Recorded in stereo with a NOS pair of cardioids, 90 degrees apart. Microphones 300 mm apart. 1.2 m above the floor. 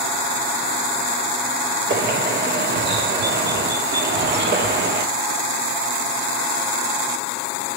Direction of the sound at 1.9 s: 35° right.